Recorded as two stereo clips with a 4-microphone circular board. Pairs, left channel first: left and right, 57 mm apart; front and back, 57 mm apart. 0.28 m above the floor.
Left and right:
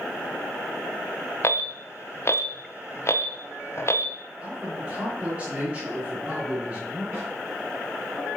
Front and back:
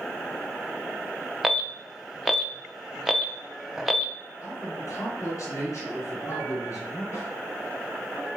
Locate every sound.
1.4 s an alarm: 95° left, 0.9 m
4.4 s a man speaking: 20° right, 3.5 m
7.1 s a snare drum: 40° right, 4.5 m